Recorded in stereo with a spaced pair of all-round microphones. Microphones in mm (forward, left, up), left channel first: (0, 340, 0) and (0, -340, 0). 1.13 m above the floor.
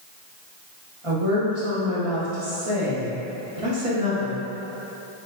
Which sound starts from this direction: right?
A woman speaking, at 1.0 s.